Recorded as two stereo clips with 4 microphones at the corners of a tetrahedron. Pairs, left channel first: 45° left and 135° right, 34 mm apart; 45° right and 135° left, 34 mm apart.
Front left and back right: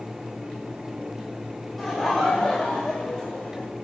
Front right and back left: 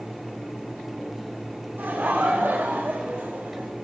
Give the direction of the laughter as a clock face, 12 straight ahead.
8 o'clock.